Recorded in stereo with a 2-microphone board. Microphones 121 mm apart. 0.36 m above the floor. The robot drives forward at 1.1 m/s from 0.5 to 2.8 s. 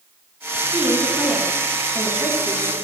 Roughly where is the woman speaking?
Centre.